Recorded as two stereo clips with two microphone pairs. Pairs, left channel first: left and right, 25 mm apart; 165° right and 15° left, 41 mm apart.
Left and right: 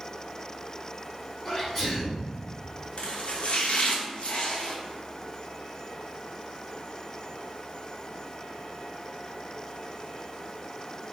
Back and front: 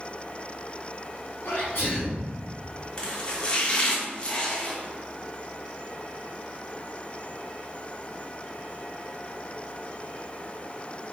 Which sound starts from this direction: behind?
A sneeze, at 1.4 s.